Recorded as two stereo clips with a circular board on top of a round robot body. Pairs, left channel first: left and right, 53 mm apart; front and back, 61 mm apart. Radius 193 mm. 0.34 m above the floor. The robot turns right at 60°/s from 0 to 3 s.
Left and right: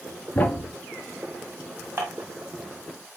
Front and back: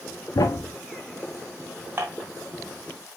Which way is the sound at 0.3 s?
25° left.